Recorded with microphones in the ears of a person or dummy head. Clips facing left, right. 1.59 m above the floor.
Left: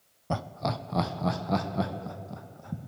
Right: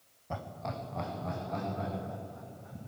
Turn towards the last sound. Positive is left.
turn(degrees=75)  # may be behind; listen again after turning